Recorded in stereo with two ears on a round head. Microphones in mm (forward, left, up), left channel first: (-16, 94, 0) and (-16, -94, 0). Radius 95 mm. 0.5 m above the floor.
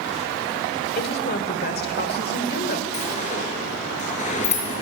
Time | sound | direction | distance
0.9 | a woman speaking | 50° left (ahead or behind) | 1.9 m
2.9 | a sliding door | 40° left (ahead or behind) | 6 m